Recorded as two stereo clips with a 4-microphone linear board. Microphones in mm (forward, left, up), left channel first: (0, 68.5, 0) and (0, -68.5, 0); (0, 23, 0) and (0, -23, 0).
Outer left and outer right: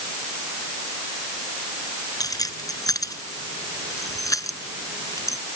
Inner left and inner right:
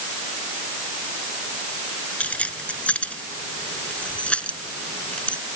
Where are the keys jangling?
25° left (ahead or behind).